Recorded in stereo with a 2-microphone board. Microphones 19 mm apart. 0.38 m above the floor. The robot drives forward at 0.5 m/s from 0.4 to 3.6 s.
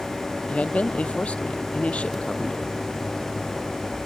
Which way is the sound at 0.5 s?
75° left (ahead or behind).